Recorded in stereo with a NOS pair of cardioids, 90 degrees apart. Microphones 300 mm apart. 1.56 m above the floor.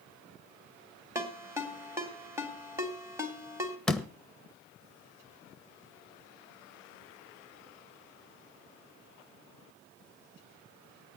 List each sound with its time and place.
1.1 s a ringtone: 10° right, 3 m
3.9 s a door slam: straight ahead, 1.1 m